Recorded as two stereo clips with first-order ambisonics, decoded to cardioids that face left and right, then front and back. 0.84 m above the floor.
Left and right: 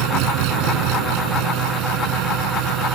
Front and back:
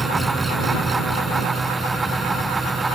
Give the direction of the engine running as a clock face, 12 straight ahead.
3 o'clock.